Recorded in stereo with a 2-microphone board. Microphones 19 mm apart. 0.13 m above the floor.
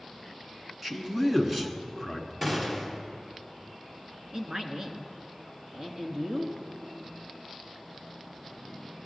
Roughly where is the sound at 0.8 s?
Centre.